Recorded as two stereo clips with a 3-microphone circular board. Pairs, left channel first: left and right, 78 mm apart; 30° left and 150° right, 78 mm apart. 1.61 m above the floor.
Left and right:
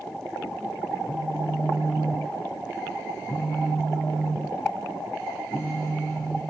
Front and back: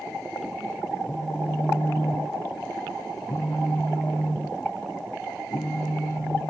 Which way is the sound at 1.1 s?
40° left.